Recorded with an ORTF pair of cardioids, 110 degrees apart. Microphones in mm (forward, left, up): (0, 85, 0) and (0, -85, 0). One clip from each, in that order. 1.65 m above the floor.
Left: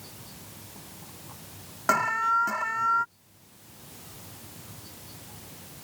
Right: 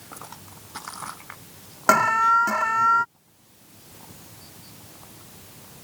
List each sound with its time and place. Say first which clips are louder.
1.9 s an alarm: right 6 dB; 35° right